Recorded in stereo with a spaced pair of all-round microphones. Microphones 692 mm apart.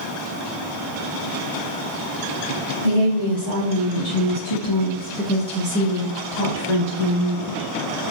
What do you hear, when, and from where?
2.8 s a woman speaking: 90° left, 1.9 m; by 7.7 s 45° right (ahead or behind), 2.5 m